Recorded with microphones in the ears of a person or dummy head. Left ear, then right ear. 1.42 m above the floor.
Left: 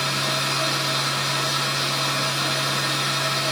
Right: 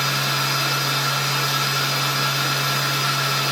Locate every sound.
0.0 s a machine running: 10° right (ahead or behind), 0.9 m